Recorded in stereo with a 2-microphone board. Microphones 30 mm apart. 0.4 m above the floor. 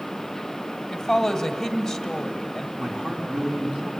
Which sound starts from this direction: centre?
A man speaking, at 2.8 s.